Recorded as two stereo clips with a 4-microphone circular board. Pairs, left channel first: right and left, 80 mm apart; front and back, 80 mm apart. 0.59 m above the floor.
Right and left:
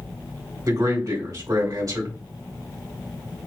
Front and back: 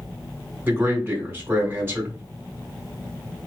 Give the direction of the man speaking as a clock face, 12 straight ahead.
8 o'clock.